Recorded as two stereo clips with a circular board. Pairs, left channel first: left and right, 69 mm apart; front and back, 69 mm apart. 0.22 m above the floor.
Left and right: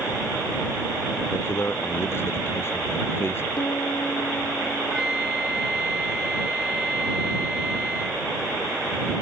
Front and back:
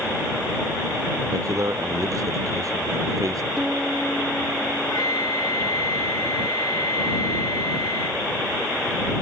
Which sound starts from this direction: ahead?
A flute, at 4.9 s.